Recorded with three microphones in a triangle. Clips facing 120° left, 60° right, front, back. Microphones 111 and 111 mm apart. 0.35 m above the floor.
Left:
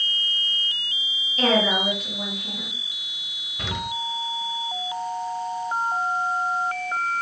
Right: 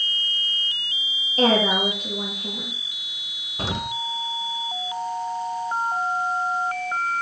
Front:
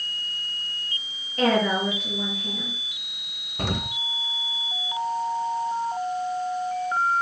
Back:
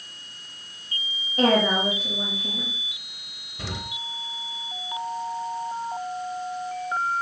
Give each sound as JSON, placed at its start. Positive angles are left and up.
{"t": 1.4, "sound": "a woman speaking", "azimuth_deg": -105, "distance_m": 6.5}
{"t": 3.6, "sound": "an explosion", "azimuth_deg": -15, "distance_m": 0.9}